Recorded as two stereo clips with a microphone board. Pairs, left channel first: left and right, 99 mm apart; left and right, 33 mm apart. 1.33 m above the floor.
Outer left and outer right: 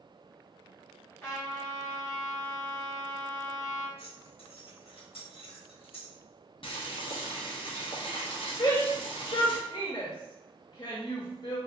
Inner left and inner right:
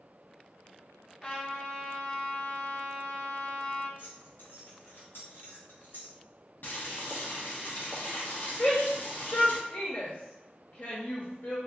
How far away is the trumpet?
About 1.5 m.